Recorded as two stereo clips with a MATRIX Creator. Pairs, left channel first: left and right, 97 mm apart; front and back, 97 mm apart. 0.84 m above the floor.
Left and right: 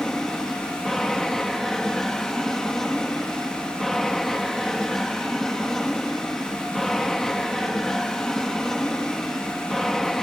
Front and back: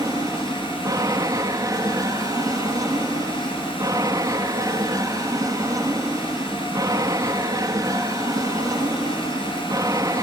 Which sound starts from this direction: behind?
An aircraft, at 0.0 s.